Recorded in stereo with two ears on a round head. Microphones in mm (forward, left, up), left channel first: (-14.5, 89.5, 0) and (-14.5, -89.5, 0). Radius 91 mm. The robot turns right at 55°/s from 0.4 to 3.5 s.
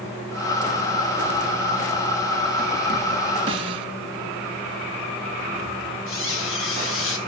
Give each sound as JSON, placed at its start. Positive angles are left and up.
{"t": 3.5, "sound": "a snare drum", "side_deg": -25, "distance_m": 2.0}
{"t": 6.1, "sound": "a squeak", "side_deg": 75, "distance_m": 3.0}